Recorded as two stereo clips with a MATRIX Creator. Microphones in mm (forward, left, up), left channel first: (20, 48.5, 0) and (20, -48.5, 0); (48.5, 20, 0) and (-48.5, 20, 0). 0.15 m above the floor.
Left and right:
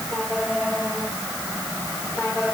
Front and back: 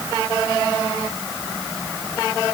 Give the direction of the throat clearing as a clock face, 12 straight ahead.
I don't hear throat clearing.